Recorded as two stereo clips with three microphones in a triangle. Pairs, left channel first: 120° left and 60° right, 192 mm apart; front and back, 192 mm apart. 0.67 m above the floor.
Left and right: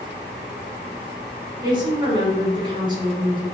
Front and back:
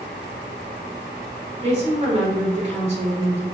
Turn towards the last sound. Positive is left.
turn(degrees=-125)